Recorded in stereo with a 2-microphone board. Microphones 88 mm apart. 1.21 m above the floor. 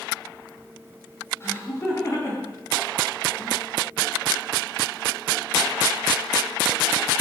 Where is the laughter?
30° left (ahead or behind), 7.5 m; by 3.6 s 40° left (ahead or behind), 6 m.